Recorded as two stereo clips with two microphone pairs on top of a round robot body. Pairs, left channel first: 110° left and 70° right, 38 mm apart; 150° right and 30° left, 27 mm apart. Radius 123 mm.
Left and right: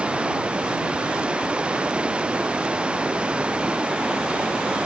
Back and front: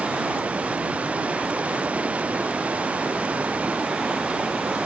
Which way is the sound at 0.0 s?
10° right.